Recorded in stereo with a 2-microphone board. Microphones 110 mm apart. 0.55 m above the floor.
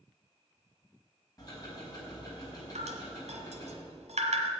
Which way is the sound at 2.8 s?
80° right.